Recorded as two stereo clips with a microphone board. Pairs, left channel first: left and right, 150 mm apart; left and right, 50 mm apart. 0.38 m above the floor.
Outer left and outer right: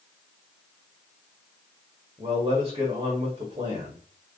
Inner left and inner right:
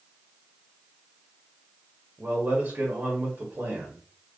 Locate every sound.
2.2 s a man speaking: 35° right (ahead or behind), 1.3 m